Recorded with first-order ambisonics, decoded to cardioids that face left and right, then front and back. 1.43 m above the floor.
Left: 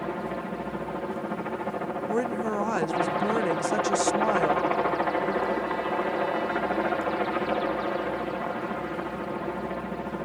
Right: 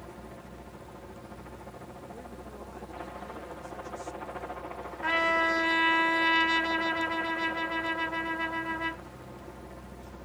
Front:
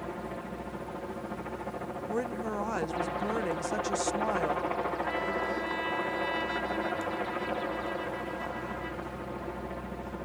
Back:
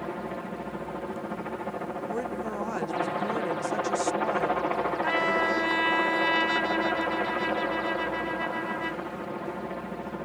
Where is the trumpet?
125° right.